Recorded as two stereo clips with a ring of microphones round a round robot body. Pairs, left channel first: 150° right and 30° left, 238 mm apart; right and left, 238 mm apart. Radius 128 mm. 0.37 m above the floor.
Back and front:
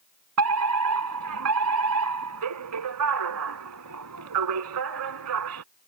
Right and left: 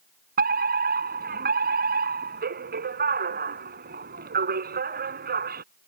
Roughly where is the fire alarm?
Ahead left.